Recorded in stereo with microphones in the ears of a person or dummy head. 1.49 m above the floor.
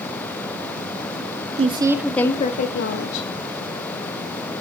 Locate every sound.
1.6 s a woman speaking: 25° right (ahead or behind), 0.7 m; by 3.3 s 75° left (ahead or behind), 1.0 m